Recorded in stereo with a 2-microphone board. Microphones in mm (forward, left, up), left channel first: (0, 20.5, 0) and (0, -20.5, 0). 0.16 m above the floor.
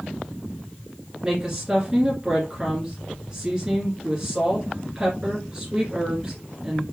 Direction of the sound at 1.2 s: 25° right (ahead or behind).